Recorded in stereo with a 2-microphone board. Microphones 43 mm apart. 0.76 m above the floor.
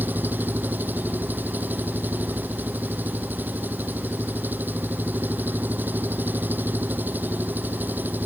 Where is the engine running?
45° right (ahead or behind).